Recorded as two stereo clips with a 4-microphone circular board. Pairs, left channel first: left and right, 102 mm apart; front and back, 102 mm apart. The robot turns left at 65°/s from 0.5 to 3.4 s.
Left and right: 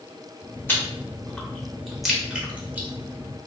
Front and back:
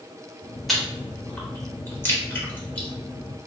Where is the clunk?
I don't hear a clunk.